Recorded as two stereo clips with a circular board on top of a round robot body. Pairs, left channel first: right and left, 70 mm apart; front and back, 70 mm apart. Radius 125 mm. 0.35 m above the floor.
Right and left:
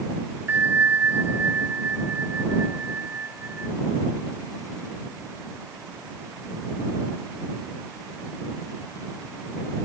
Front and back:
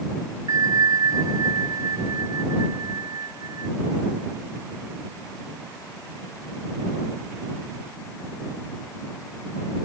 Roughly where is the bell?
Behind left.